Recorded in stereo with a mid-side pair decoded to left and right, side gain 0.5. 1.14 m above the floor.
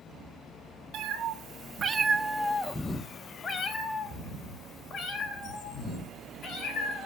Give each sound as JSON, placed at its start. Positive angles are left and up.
{"t": 0.9, "sound": "a cat meowing", "azimuth_deg": -70, "distance_m": 1.7}